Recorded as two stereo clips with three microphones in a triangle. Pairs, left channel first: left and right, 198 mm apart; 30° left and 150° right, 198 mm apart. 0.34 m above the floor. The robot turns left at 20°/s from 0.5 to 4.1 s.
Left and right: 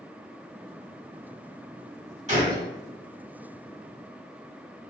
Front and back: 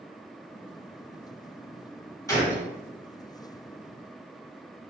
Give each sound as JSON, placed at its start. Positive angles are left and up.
{"t": 2.3, "sound": "a gunshot", "azimuth_deg": -40, "distance_m": 1.4}